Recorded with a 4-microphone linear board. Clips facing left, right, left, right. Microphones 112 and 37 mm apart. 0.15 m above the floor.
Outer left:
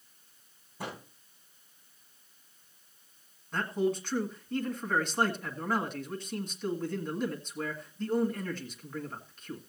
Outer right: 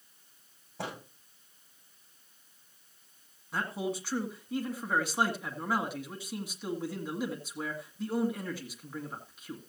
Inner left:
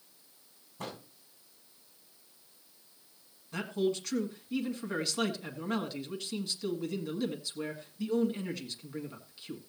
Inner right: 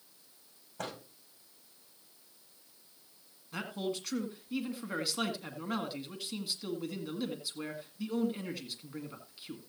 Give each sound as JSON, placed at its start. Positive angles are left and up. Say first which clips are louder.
{"t": 0.8, "sound": "a microwave", "louder": "outer right 1 dB, inner right 1 dB", "side_deg": -75, "distance_m": 8.0}
{"t": 3.5, "sound": "a man speaking", "louder": "outer left 4 dB, inner left 5 dB", "side_deg": -10, "distance_m": 1.6}